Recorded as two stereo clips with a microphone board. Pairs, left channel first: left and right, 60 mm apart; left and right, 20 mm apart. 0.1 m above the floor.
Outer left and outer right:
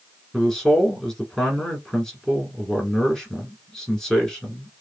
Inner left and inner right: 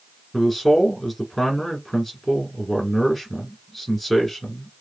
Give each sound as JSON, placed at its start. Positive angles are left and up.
{"t": 0.3, "sound": "a man speaking", "side_deg": 5, "distance_m": 1.6}